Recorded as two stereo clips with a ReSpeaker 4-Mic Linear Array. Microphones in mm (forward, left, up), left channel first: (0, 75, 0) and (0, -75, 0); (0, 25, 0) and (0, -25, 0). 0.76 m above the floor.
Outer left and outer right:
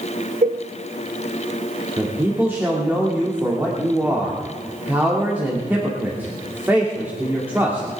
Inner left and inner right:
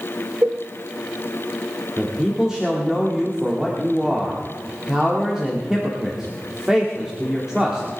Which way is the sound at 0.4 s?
65° right (ahead or behind).